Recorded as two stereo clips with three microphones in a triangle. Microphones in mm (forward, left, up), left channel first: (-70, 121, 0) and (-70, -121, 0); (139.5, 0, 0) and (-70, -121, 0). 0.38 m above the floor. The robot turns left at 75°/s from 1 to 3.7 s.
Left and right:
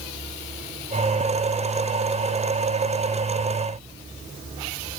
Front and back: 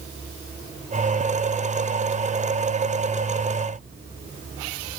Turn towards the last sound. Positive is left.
No sound to turn to.